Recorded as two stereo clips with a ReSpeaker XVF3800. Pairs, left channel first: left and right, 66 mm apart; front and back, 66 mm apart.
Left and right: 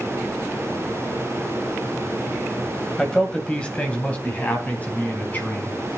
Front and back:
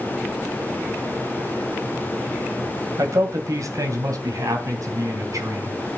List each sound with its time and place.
3.0 s a man speaking: 170° left, 1.8 m; by 5.8 s 150° left, 3.5 m